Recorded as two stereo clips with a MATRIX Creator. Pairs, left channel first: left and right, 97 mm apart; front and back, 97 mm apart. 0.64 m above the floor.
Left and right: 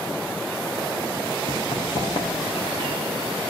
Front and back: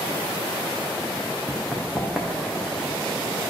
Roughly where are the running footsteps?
Left.